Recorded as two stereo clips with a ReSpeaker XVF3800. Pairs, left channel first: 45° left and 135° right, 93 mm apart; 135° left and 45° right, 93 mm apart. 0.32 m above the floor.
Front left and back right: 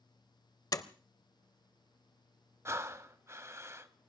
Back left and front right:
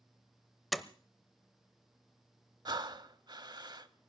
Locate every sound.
0.7 s a door slam: 45° left, 0.7 m
2.6 s breathing: 75° right, 0.7 m